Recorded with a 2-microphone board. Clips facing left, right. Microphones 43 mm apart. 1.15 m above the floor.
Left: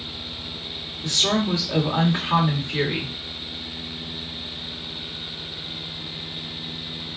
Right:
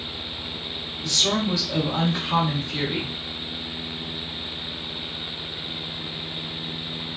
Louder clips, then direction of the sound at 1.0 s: Left 1 dB; 35° left (ahead or behind).